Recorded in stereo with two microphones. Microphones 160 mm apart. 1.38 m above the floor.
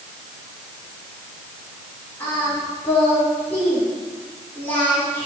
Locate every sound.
2.2 s singing: 15° left (ahead or behind), 3.5 m